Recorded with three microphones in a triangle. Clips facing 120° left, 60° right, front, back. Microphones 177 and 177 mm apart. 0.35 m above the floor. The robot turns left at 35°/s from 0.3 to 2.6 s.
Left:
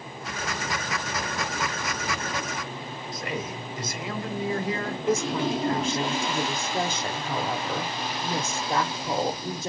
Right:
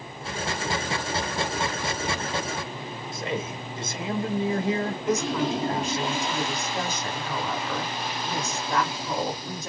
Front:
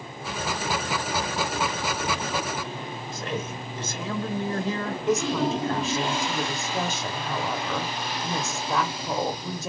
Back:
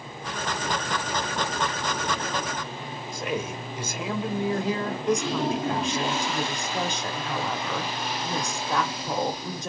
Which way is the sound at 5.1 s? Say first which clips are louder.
Left 1 dB, front 1 dB; 80° left.